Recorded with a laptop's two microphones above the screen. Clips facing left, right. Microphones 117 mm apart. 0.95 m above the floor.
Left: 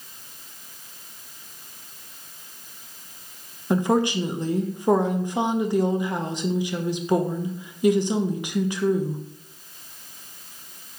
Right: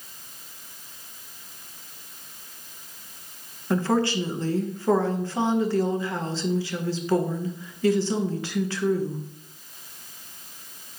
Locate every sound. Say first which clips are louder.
3.7 s a woman speaking: left 2 dB; 20° left (ahead or behind), 0.5 m